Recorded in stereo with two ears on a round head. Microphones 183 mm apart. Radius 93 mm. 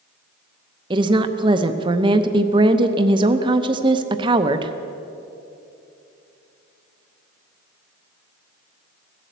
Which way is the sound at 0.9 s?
20° right (ahead or behind).